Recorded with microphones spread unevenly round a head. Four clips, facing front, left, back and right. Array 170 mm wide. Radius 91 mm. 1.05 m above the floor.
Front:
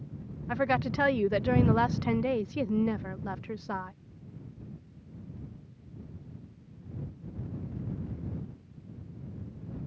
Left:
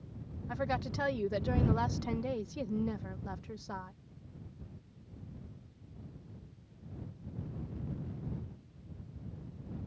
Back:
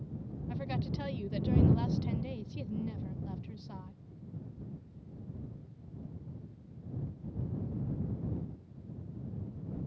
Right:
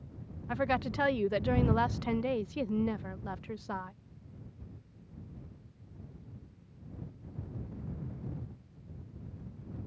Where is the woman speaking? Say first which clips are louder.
Right 4 dB, front 11 dB; 15° right.